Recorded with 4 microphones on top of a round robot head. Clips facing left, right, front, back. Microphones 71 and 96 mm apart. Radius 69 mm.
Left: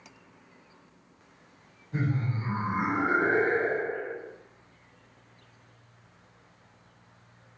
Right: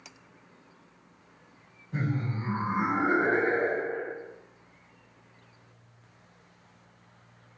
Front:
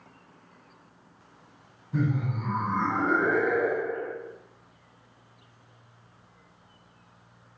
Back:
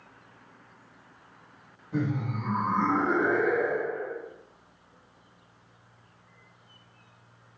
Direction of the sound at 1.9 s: 170° right.